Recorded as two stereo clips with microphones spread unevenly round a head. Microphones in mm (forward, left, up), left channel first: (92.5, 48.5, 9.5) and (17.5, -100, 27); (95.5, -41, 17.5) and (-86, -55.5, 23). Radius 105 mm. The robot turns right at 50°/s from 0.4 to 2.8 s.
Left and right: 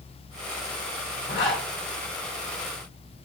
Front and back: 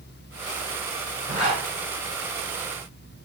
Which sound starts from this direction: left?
A zipper, at 1.3 s.